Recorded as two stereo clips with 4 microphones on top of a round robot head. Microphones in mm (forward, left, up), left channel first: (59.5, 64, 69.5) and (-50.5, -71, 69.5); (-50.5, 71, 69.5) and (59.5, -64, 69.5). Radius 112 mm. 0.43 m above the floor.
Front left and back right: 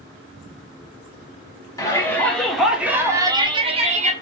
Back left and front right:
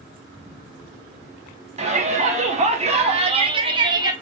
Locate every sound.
1.8 s a shout: 15° right, 1.2 m; by 4.1 s 110° right, 1.1 m